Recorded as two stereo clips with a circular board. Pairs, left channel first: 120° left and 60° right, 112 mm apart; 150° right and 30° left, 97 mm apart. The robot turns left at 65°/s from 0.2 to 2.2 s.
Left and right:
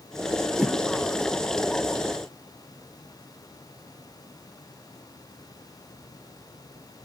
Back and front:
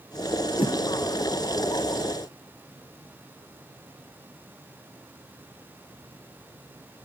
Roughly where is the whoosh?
Behind right.